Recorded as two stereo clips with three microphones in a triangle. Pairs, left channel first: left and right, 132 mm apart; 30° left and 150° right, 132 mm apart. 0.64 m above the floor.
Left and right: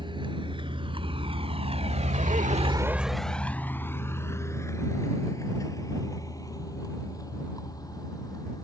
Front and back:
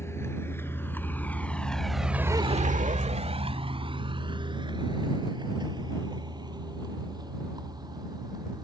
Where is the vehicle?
40° right; by 8.6 s 150° left.